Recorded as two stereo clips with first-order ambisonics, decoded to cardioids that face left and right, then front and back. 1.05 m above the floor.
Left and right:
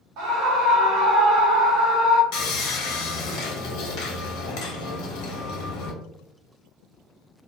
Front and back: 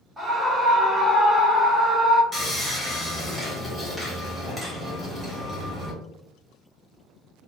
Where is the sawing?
80° left, 0.9 m.